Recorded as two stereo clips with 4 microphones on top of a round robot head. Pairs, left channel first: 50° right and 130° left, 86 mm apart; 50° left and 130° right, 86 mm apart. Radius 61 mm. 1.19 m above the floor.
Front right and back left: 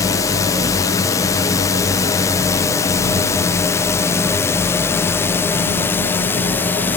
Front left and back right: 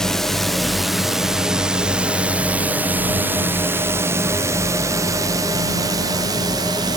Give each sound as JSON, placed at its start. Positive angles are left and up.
{"t": 0.0, "sound": "a drone", "azimuth_deg": -30}